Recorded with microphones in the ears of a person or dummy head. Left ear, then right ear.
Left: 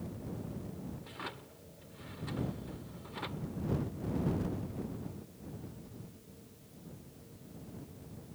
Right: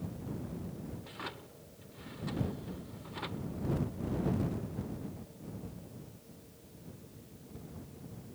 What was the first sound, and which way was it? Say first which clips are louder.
A drawer: even; 5° left (ahead or behind).